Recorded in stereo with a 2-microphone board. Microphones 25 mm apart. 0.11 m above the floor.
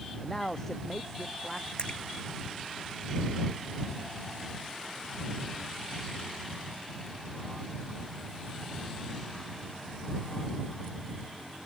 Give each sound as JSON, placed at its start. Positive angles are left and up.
{"t": 0.2, "sound": "a man speaking", "side_deg": 20}
{"t": 1.8, "sound": "a splash", "side_deg": 40}